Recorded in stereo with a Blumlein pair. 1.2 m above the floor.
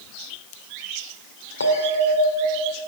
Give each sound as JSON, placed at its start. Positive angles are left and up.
{"t": 1.6, "sound": "a bell", "azimuth_deg": 70, "distance_m": 2.0}